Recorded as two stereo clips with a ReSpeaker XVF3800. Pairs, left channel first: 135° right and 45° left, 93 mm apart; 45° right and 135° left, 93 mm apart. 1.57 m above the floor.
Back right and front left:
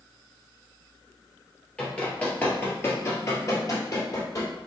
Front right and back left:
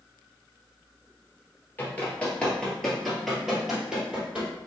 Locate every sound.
1.8 s running footsteps: 75° right, 1.7 m; by 4.5 s 155° right, 2 m